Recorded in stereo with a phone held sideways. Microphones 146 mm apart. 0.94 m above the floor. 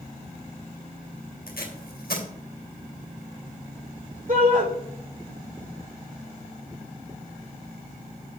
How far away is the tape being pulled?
About 2.5 m.